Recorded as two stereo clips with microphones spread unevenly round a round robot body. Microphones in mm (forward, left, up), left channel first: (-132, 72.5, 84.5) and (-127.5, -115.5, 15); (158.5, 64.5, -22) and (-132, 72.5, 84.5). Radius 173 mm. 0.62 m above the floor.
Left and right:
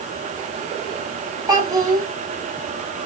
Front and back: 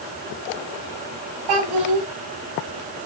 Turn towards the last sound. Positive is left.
turn(degrees=-155)